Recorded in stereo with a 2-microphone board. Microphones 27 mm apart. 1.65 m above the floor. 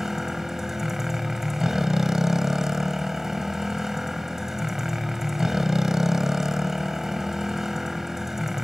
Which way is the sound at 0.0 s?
15° right (ahead or behind).